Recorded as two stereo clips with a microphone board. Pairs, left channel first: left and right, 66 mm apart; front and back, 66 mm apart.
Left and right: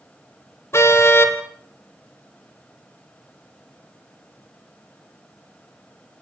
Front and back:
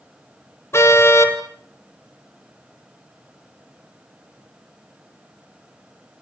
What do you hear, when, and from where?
0.7 s a car horn: 45° left, 3 m